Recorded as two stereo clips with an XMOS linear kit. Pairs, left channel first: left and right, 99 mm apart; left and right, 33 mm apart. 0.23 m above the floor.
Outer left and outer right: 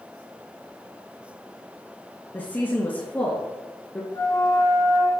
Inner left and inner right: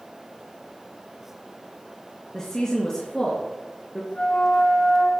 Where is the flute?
30° left (ahead or behind), 8 m.